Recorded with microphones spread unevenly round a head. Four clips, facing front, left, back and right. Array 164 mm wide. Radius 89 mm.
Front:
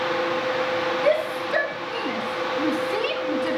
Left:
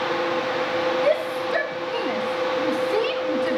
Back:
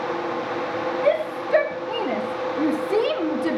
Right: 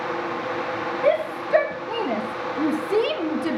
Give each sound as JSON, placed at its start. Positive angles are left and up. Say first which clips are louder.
{"t": 1.0, "sound": "a shout", "louder": "even, back 2 dB", "azimuth_deg": -80, "distance_m": 2.5}